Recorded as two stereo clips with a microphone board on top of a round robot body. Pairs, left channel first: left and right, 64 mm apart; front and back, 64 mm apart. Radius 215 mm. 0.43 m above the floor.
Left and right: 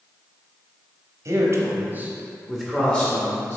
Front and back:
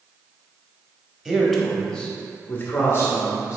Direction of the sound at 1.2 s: 100° right.